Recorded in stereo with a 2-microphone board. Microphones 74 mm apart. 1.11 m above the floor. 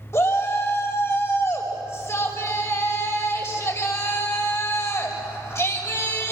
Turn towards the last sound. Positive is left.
turn(degrees=40)  # may be behind; listen again after turning